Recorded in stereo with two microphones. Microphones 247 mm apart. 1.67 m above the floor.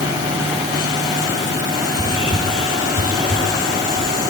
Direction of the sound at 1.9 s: 65° left (ahead or behind).